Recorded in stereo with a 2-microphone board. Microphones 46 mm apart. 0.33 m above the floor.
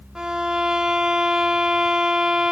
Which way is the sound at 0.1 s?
20° right (ahead or behind).